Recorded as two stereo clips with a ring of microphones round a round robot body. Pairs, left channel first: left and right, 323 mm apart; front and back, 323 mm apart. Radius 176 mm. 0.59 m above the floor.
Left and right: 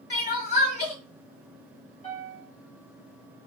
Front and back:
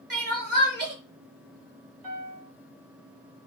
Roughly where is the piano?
Behind.